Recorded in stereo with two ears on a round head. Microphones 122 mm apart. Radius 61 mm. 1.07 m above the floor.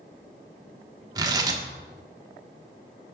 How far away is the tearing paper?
About 1.2 m.